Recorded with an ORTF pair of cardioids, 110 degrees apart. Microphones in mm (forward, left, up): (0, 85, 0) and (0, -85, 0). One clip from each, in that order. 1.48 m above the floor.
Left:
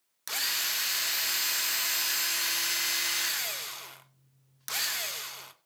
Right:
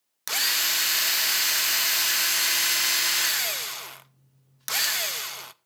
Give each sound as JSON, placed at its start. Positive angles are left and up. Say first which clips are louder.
{"t": 0.3, "sound": "a drill", "louder": "right 6 dB", "azimuth_deg": -30, "distance_m": 0.5}